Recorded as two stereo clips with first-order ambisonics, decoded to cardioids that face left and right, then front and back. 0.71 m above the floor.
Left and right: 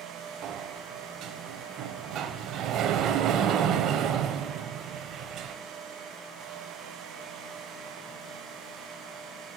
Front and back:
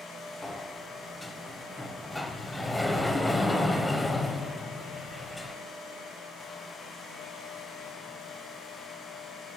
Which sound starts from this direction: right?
A sliding door, at 0.4 s.